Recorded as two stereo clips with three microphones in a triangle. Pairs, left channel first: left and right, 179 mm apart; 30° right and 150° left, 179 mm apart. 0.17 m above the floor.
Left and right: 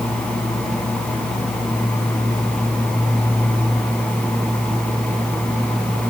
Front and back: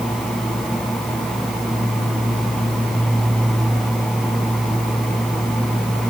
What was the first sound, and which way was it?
Only background noise.